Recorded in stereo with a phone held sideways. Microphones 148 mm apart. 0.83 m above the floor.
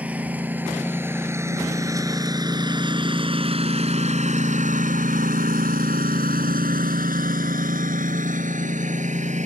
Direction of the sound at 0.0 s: 10° right (ahead or behind).